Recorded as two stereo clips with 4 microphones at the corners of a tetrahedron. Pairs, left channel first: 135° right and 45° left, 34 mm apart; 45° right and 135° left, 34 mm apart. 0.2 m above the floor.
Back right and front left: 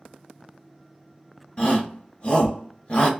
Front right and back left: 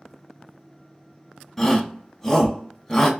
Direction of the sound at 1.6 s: 120° right.